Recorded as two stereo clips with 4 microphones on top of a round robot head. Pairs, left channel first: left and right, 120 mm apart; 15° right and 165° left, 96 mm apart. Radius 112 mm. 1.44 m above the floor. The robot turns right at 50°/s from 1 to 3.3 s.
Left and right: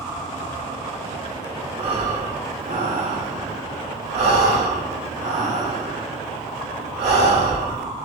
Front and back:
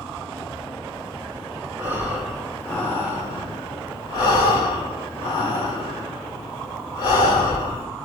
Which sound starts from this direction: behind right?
Breathing, at 1.8 s.